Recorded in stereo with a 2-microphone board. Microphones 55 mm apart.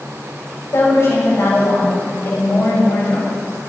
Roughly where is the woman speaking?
Left.